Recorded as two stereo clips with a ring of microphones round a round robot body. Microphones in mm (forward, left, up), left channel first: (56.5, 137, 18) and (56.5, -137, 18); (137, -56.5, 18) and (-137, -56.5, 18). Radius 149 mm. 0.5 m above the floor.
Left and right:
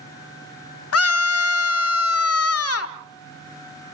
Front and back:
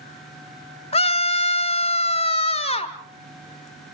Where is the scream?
70° left, 1.4 m.